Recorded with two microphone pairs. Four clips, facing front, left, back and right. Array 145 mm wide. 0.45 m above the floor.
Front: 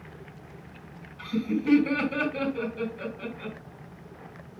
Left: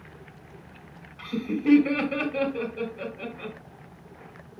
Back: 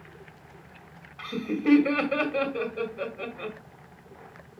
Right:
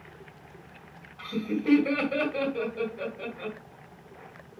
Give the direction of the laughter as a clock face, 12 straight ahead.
6 o'clock.